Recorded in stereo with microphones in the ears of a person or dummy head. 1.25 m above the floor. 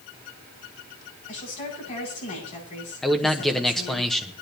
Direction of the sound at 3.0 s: Centre (ahead or behind).